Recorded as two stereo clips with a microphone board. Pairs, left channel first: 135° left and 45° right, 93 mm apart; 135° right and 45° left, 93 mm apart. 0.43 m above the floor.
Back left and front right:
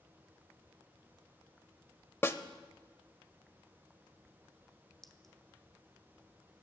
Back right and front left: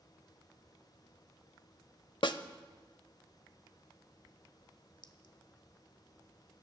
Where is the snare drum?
165° right, 0.7 m.